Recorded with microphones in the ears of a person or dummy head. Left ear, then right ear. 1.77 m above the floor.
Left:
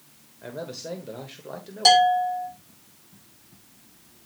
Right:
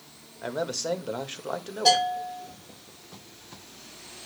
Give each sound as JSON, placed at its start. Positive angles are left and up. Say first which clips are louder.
{"t": 0.4, "sound": "a man speaking", "louder": "right 6 dB", "side_deg": -45, "distance_m": 1.1}
{"t": 1.9, "sound": "a bell", "louder": "left 6 dB", "side_deg": 80, "distance_m": 5.0}